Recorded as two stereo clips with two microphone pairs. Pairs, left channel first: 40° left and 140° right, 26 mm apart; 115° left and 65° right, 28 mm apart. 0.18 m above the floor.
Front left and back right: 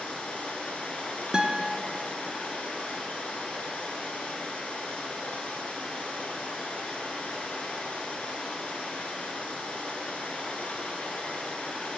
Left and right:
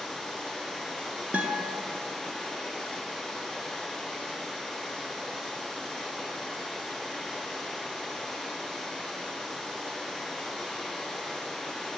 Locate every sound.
0.0 s running water: 25° left, 1.3 m
1.3 s a guitar: 80° right, 0.5 m